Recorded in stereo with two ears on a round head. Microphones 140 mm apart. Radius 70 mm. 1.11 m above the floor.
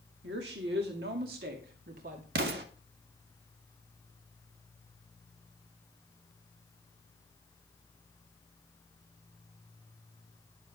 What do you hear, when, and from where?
0.2 s a woman speaking: 80° right, 2.5 m; by 2.2 s 55° right (ahead or behind), 2.5 m
2.4 s an explosion: 75° right (ahead or behind), 2 m